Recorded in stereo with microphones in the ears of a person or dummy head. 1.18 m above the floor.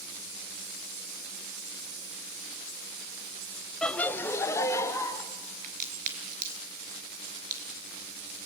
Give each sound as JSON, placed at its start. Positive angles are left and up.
{"t": 3.8, "sound": "laughter", "side_deg": 0, "distance_m": 0.6}
{"t": 5.6, "sound": "a crack", "side_deg": -45, "distance_m": 4.5}